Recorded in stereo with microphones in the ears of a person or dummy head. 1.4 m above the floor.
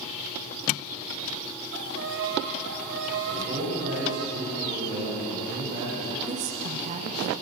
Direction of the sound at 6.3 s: 45° right (ahead or behind).